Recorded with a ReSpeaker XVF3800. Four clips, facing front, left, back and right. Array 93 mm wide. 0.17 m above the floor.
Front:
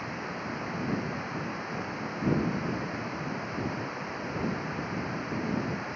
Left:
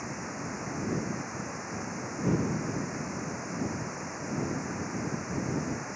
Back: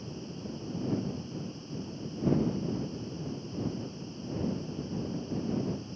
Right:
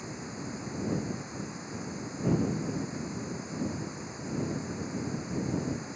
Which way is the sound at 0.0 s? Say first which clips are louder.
Left 3 dB, front 6 dB; 25° left.